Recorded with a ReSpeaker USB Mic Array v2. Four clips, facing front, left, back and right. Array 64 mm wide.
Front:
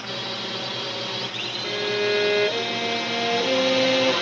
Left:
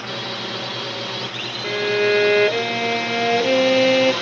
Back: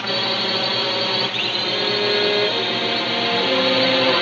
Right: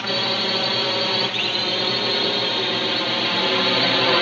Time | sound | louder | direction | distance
0.0 | a drone | right 4 dB, back 8 dB | 150° right | ?
1.6 | a violin | left 10 dB, back 1 dB | 90° left | ?